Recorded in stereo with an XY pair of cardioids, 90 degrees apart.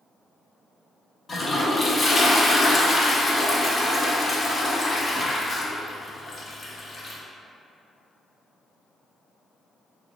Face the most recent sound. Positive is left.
turn(degrees=40)